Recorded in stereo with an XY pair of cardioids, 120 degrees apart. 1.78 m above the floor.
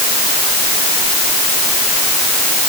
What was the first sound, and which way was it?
Only background noise.